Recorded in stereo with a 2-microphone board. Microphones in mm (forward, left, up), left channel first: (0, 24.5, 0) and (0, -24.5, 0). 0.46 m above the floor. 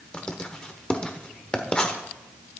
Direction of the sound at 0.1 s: 20° left (ahead or behind).